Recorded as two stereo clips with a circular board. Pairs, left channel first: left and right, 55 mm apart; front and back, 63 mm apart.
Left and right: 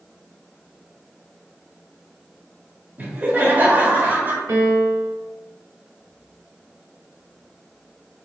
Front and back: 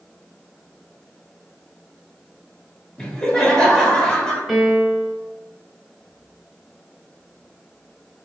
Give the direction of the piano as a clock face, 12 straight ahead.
3 o'clock.